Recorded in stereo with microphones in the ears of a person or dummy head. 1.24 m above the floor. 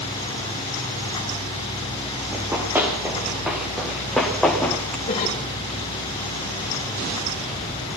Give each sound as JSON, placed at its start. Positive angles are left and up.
{"t": 2.3, "sound": "running footsteps", "side_deg": -10, "distance_m": 6.5}
{"t": 5.1, "sound": "a cough", "side_deg": 30, "distance_m": 5.5}